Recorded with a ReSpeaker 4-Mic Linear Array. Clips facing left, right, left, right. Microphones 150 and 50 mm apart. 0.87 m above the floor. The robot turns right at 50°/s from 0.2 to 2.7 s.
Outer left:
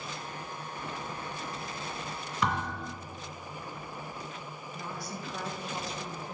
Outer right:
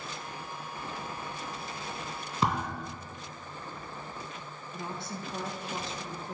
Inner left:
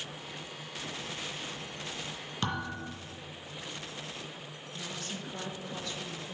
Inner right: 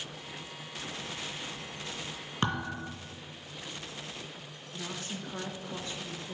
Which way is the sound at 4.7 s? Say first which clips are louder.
Outer right 2 dB, inner right 2 dB; 25° right (ahead or behind).